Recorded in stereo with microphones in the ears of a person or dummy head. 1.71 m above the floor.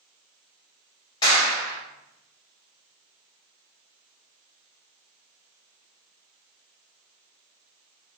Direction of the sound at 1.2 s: 25° left (ahead or behind).